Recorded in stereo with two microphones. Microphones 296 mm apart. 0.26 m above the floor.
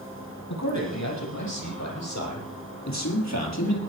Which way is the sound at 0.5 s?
70° left (ahead or behind).